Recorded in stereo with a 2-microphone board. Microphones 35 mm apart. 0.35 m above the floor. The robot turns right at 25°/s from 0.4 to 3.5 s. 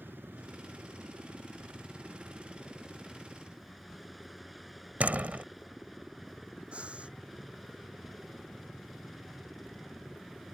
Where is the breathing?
35° right (ahead or behind).